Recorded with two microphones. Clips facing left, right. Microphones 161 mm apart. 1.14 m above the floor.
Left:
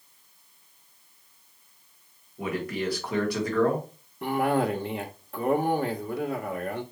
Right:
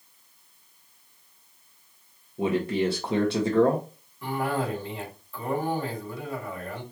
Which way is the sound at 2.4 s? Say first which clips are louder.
Right 5 dB; 25° right (ahead or behind).